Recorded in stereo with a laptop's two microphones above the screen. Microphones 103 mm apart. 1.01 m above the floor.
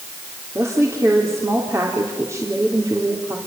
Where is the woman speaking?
30° right (ahead or behind), 3.5 m.